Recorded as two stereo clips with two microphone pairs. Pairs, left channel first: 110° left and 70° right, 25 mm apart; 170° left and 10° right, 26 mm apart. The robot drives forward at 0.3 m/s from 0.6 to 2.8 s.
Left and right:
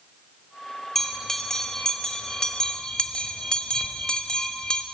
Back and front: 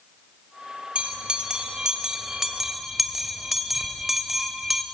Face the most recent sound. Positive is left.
turn(degrees=70)